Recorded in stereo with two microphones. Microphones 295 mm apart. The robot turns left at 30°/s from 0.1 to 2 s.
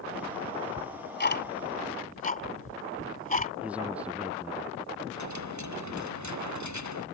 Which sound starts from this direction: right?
A dropped coin, at 5.1 s.